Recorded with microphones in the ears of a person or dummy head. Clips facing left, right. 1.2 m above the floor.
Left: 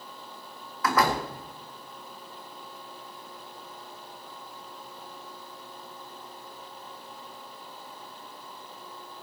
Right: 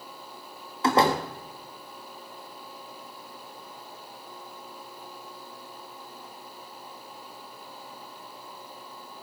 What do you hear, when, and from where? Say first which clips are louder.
0.8 s a door slam: right 3 dB; 25° right (ahead or behind), 1.5 m